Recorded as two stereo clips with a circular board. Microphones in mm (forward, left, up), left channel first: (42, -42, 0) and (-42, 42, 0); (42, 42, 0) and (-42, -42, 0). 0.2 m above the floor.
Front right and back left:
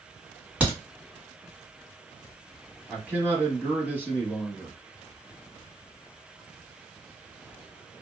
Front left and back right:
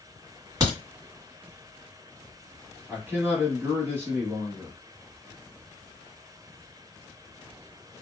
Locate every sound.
0.6 s a crack: 160° right, 1.7 m
2.9 s a man speaking: 165° right, 1.0 m